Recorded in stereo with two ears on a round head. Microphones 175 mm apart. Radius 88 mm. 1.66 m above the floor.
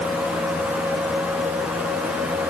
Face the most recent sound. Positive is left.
No sound to turn to.